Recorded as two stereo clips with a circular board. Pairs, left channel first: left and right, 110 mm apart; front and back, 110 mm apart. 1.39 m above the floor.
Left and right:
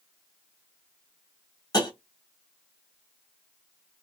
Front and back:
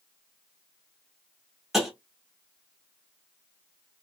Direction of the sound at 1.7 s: 90° left.